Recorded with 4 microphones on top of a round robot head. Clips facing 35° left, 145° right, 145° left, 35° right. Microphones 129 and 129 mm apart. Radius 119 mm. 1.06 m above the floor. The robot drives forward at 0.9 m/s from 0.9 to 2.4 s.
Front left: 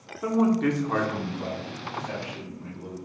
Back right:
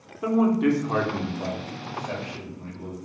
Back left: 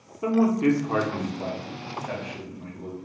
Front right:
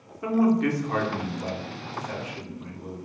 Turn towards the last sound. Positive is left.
turn(degrees=175)